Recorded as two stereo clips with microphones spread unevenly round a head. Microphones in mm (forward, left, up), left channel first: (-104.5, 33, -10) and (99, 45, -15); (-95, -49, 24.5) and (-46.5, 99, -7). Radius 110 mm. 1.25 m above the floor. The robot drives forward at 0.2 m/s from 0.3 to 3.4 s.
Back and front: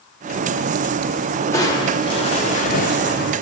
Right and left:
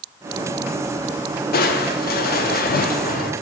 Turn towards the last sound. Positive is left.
turn(degrees=-140)